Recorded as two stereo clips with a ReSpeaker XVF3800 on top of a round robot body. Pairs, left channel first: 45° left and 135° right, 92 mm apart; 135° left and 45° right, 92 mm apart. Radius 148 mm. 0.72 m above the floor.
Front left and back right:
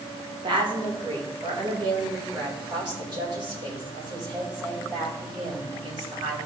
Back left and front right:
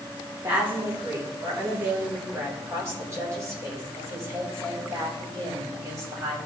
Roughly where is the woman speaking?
Right.